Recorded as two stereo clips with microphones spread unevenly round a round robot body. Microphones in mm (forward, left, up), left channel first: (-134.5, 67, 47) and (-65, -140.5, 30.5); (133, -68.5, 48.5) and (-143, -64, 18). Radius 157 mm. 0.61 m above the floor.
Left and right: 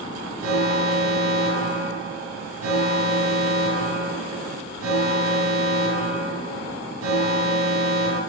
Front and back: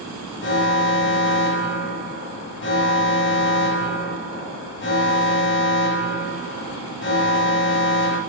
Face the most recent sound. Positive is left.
turn(degrees=-50)